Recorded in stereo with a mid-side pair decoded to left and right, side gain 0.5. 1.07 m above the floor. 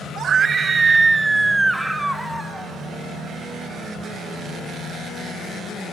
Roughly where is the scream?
Ahead right.